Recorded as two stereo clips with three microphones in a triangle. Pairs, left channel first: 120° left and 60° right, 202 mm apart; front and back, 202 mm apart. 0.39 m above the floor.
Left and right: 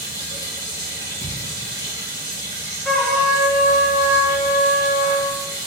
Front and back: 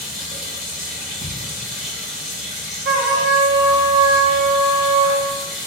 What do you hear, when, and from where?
0.0 s running water: 90° left, 1.7 m
1.2 s a thud: 145° left, 1.4 m
2.9 s a trumpet: 155° right, 0.7 m